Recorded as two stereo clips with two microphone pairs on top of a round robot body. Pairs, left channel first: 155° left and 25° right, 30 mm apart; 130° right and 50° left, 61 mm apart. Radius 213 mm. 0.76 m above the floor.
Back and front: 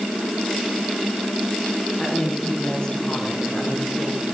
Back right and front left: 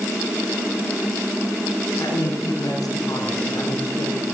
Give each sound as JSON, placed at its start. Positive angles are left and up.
{"t": 2.0, "sound": "a woman speaking", "azimuth_deg": -150, "distance_m": 9.5}